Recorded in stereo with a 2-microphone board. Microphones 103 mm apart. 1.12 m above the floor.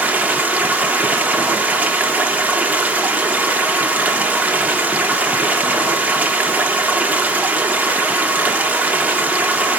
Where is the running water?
15° right (ahead or behind), 1.5 m.